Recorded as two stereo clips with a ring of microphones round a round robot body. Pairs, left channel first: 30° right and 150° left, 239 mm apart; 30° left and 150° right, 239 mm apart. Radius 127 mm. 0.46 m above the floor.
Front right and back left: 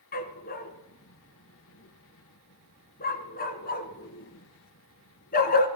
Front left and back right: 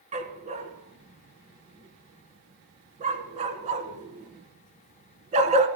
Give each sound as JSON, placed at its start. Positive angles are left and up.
{"t": 0.1, "sound": "a dog barking", "azimuth_deg": -85, "distance_m": 1.9}